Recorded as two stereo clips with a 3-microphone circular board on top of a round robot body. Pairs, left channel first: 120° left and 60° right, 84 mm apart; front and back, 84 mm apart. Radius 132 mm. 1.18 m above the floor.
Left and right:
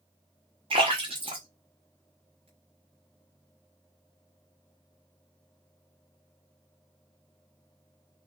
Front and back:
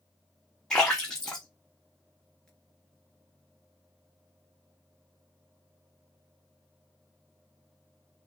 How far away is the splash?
About 0.8 m.